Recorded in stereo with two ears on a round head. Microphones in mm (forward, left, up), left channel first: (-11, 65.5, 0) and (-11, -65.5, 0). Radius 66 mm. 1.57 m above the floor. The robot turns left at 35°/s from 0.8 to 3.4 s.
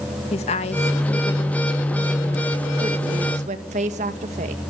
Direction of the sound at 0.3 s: 45° left.